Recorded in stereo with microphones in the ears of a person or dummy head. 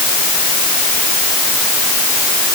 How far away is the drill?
I don't hear a drill.